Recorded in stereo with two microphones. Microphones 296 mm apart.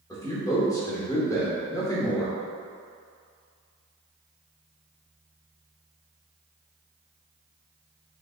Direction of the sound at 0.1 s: 10° left (ahead or behind).